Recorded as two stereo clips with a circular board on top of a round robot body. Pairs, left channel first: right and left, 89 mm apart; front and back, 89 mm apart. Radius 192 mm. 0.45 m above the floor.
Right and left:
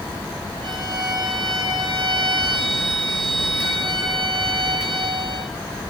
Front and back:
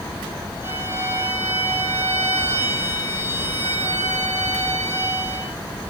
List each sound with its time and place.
0.6 s a violin: 115° left, 7.5 m